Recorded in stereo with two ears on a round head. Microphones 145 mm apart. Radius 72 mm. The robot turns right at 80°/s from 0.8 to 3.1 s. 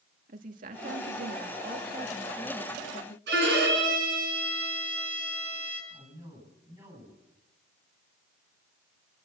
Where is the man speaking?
20° right (ahead or behind), 9.5 m.